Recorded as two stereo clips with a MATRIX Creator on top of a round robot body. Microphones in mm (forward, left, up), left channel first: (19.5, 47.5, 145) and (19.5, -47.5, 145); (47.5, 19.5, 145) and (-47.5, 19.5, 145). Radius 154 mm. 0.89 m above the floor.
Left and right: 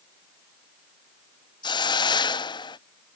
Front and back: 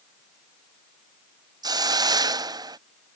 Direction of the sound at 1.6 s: 130° left.